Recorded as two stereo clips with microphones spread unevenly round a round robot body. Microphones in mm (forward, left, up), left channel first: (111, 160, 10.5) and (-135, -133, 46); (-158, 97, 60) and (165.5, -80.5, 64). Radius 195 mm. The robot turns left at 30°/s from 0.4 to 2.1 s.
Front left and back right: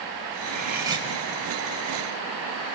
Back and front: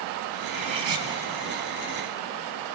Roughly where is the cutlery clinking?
Ahead right.